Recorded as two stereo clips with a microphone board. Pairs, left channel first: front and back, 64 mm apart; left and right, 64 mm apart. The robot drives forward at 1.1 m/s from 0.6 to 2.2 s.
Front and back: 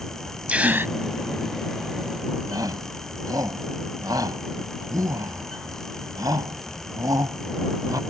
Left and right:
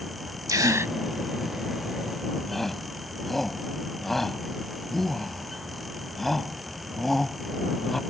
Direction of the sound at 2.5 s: 175° left.